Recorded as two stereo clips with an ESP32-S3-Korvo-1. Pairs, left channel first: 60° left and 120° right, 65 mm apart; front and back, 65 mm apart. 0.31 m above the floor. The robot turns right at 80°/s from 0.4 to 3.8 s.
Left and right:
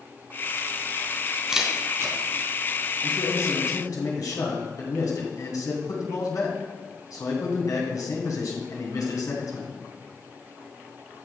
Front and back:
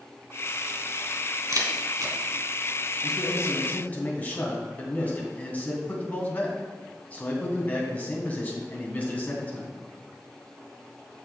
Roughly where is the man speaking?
Ahead.